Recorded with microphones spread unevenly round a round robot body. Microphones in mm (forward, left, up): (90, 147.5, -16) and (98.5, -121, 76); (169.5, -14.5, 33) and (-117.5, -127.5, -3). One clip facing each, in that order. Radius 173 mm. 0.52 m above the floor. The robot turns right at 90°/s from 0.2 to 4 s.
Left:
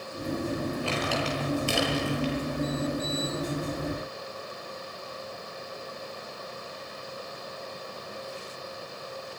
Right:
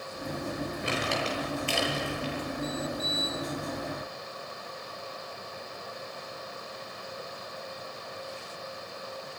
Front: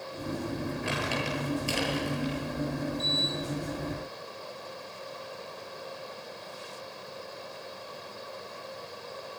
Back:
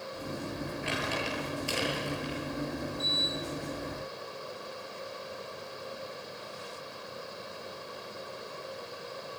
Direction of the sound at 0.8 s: 20° right.